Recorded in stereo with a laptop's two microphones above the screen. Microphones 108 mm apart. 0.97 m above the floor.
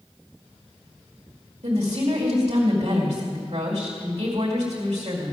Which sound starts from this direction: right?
A woman speaking, at 1.6 s.